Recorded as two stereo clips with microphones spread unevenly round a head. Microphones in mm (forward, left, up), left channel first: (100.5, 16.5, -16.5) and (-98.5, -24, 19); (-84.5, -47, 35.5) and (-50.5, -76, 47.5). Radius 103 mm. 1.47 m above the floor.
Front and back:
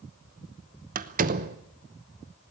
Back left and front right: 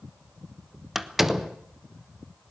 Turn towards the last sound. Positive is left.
turn(degrees=-120)